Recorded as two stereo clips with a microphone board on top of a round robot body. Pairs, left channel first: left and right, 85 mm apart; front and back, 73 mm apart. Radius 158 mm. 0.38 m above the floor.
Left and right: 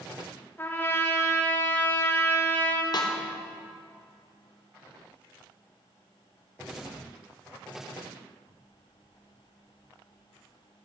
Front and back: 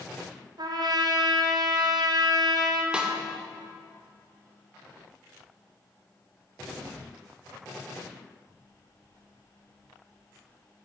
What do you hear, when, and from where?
0.6 s a trumpet: 155° left, 1.1 m
2.9 s a snare drum: 105° left, 1.4 m